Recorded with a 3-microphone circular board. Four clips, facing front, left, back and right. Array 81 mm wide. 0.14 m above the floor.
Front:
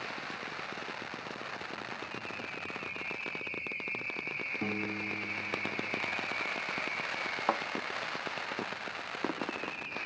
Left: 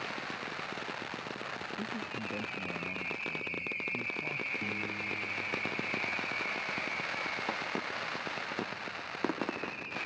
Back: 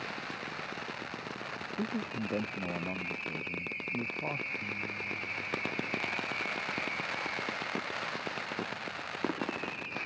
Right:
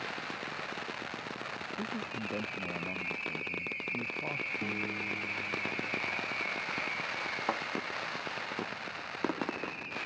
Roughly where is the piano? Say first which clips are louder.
Right 1 dB, front 4 dB; ahead.